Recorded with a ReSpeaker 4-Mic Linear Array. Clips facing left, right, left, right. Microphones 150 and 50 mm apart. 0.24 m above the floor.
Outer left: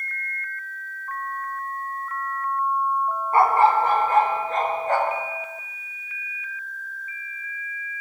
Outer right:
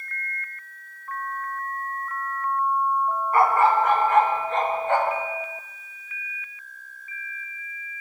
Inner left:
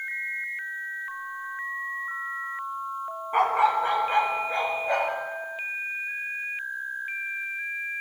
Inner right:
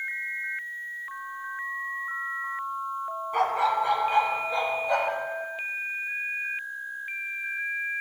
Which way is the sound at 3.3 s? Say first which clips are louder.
Outer left 2 dB, inner left 3 dB; 30° left (ahead or behind).